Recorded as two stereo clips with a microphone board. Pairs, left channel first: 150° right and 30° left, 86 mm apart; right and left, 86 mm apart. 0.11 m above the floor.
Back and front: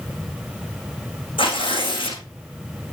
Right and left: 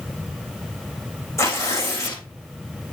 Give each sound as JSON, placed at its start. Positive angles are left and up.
{"t": 1.4, "sound": "tearing paper", "azimuth_deg": -145, "distance_m": 5.5}